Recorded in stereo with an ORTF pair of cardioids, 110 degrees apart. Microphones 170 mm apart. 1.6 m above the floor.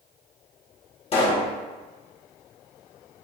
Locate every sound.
1.1 s a pop: 35° left, 1.4 m